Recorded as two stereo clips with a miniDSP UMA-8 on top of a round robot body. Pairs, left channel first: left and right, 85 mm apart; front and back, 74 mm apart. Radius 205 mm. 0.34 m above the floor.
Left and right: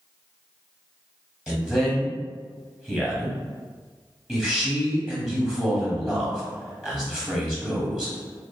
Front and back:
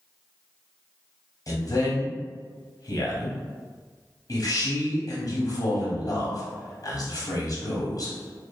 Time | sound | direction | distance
1.5 | a man speaking | 10° right | 1.3 m